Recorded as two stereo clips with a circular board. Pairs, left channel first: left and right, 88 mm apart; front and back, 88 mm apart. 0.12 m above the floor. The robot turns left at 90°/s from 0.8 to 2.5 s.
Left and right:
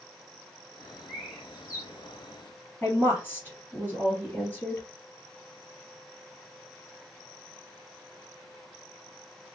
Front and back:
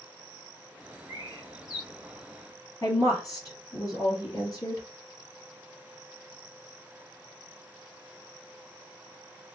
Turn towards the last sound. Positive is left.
turn(degrees=30)